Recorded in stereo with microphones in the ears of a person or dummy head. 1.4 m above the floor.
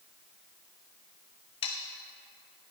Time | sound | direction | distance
1.6 | sawing | 30° left (ahead or behind) | 0.8 m